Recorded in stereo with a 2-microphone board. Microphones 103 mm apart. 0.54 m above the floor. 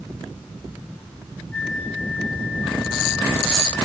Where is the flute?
10° left (ahead or behind), 5 m.